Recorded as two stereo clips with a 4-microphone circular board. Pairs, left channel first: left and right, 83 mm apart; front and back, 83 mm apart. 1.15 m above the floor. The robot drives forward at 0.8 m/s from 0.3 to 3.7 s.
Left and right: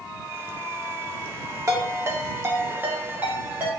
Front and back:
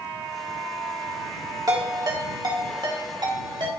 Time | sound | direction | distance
1.7 | a ringtone | 140° right | 1.5 m